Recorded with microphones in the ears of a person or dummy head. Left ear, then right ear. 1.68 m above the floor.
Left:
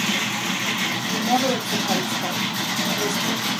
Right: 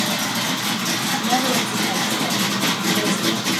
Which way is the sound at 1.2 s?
55° left (ahead or behind).